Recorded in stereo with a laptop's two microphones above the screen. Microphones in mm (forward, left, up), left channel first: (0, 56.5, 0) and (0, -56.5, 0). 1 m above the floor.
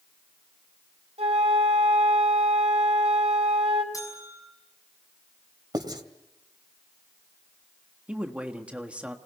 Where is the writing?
40° right (ahead or behind), 2.5 m.